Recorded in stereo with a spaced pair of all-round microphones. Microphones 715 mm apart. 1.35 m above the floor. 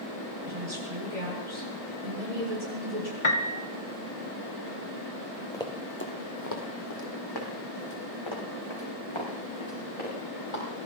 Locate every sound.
0.5 s a woman speaking: 70° right (ahead or behind), 6.5 m
3.2 s a piano: 45° left (ahead or behind), 1.6 m
5.5 s running footsteps: 5° left (ahead or behind), 1.9 m; by 10.6 s 45° left (ahead or behind), 8 m